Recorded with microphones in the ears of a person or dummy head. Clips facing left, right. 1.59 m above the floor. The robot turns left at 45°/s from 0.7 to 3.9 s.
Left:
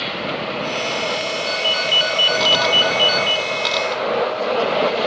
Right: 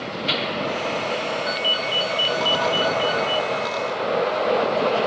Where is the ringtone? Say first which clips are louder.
Left 3 dB; 170° right, 0.9 m; by 3.5 s 100° left, 0.9 m.